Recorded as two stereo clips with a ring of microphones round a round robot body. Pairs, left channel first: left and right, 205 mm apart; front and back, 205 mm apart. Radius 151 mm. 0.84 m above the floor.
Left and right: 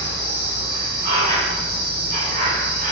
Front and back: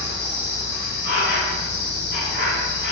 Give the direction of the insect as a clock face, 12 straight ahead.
2 o'clock.